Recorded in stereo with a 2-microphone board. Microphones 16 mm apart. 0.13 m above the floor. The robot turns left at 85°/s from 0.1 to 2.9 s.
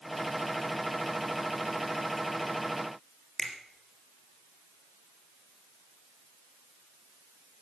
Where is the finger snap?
35° left (ahead or behind), 3 m.